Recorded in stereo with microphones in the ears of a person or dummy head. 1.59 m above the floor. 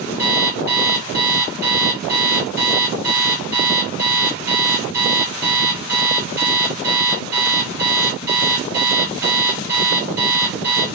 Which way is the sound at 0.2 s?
10° right (ahead or behind).